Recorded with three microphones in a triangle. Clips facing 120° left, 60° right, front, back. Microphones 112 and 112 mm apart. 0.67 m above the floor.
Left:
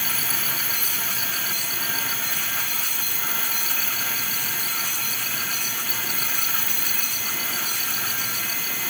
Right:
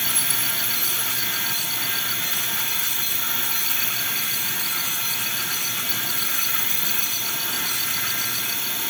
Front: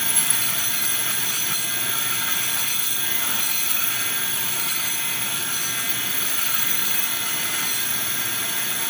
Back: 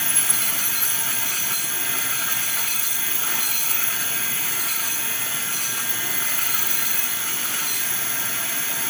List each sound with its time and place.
0.0 s an insect: 70° left